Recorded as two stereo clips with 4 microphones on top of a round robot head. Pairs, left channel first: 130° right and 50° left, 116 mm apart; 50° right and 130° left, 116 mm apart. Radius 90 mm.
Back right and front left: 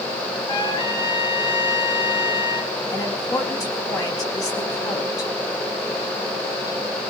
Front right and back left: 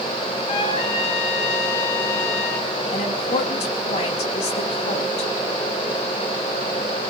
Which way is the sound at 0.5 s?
85° right.